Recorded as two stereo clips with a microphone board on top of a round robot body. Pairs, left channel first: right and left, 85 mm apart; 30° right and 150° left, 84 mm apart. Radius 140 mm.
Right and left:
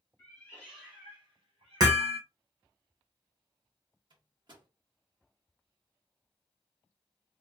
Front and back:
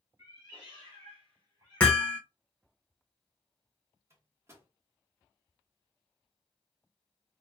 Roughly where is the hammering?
Ahead left.